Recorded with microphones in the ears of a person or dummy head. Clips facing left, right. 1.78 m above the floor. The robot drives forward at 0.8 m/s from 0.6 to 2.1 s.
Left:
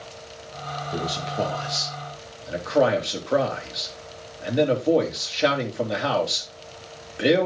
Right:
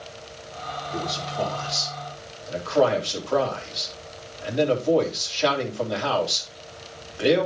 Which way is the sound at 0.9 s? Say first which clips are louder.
Left 2 dB; 35° left (ahead or behind).